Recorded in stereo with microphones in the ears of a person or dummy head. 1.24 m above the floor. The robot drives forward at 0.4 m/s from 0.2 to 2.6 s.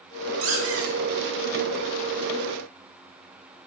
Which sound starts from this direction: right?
A squeak, at 0.4 s.